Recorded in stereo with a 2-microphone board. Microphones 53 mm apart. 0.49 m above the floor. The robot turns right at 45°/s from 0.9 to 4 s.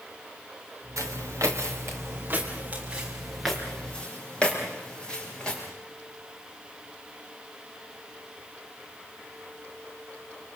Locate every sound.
1.0 s footsteps: 80° right, 3.5 m; by 5.6 s 20° left (ahead or behind), 8.5 m